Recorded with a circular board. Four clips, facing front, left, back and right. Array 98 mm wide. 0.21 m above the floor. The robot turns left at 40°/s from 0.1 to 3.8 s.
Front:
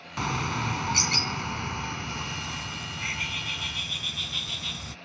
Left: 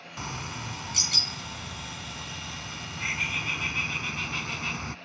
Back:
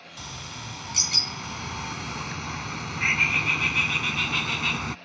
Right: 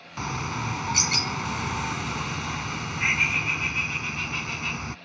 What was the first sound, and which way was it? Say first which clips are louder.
A bird: right 7 dB, front 12 dB; 25° right.